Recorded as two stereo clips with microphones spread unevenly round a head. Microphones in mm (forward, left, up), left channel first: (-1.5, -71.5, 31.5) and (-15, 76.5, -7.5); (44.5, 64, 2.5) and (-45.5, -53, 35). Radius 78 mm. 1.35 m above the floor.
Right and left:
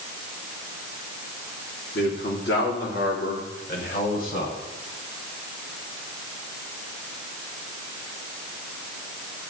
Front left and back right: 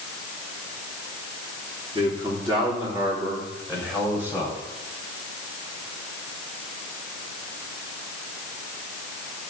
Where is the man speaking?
70° right, 3.5 m; by 4.6 s 45° right, 4.5 m.